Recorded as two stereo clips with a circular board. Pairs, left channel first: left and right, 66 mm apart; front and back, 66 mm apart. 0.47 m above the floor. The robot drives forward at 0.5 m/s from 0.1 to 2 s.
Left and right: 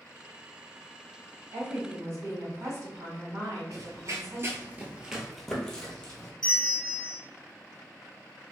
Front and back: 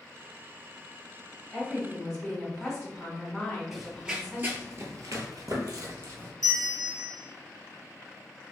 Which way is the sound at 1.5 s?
85° right.